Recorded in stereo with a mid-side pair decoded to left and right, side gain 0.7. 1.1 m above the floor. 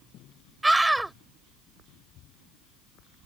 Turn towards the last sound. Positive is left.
turn(degrees=-10)